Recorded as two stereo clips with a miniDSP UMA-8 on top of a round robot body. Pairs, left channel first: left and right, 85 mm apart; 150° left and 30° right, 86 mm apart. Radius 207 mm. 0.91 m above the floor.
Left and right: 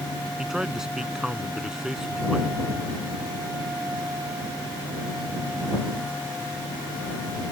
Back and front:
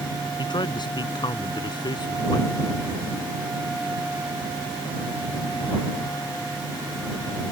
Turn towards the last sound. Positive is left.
turn(degrees=-175)